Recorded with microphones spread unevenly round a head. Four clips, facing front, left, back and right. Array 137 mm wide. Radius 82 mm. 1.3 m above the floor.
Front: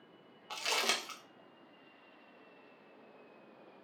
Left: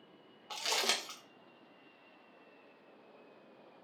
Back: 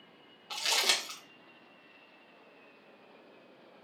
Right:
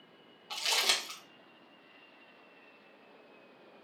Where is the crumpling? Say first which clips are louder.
Right 1 dB, back 1 dB; 85° left, 0.7 m.